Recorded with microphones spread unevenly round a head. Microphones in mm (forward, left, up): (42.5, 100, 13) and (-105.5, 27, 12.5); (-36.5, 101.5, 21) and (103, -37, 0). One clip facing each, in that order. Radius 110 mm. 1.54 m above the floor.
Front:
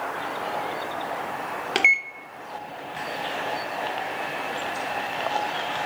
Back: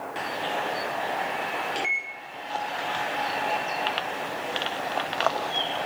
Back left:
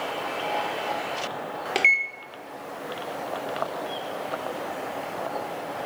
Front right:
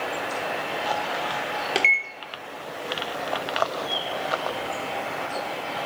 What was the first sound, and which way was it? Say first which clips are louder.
A microwave: front 4 dB, front right 1 dB; 40° left.